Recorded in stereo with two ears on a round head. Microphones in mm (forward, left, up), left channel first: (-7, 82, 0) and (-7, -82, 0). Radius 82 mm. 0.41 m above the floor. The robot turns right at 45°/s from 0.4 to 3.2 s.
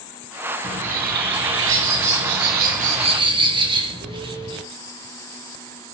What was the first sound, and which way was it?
A bird, 145° right.